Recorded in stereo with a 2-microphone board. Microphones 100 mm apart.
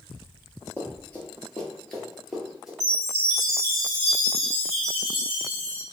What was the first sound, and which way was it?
Running footsteps, 20° left (ahead or behind).